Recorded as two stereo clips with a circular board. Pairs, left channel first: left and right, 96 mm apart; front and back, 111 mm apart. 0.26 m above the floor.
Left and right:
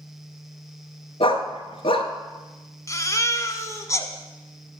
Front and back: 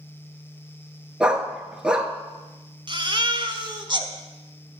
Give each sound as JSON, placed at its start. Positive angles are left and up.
{"t": 1.2, "sound": "a dog barking", "azimuth_deg": 100, "distance_m": 0.9}
{"t": 2.9, "sound": "a baby crying", "azimuth_deg": 140, "distance_m": 0.9}